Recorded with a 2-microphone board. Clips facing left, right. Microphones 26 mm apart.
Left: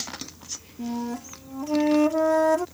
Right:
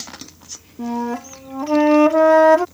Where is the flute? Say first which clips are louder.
Right 7 dB; 50° right (ahead or behind).